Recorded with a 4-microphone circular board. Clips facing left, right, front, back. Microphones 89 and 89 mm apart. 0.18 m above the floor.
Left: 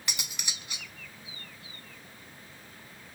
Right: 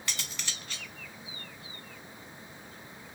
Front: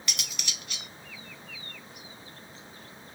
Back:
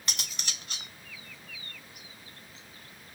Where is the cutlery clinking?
155° left, 0.7 m.